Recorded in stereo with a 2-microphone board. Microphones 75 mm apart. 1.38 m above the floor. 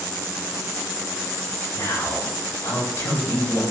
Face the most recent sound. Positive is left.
turn(degrees=50)  # may be behind; listen again after turning